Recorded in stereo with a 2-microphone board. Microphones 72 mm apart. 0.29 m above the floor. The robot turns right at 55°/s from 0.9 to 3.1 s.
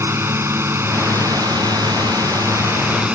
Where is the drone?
140° right; by 3.2 s 20° right.